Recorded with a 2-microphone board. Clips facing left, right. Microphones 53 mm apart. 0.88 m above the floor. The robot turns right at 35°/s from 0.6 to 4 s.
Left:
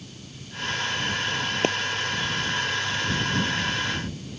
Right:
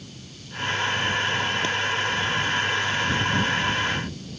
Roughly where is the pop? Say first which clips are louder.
Left 2 dB; left.